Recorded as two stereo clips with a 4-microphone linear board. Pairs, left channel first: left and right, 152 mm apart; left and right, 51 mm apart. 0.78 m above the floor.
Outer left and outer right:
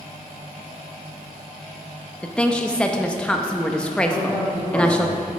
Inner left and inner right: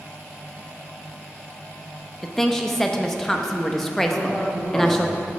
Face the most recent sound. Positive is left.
turn(degrees=20)  # may be behind; listen again after turning